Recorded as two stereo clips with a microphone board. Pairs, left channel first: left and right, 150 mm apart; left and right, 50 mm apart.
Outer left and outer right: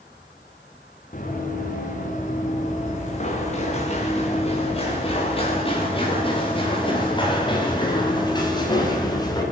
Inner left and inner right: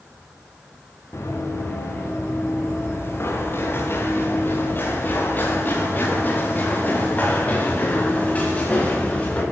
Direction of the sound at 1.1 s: 60° left (ahead or behind).